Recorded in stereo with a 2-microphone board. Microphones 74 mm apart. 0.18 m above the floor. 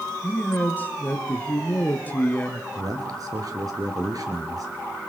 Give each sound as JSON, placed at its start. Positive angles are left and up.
{"t": 0.2, "sound": "a man speaking", "side_deg": 25, "distance_m": 3.0}
{"t": 2.8, "sound": "a man speaking", "side_deg": -60, "distance_m": 3.5}